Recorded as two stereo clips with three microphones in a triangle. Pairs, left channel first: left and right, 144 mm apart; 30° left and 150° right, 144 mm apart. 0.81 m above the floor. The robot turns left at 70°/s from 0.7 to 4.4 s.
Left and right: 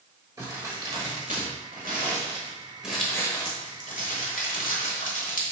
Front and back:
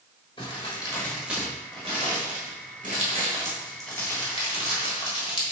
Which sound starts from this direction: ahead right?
Crumpling, at 0.4 s.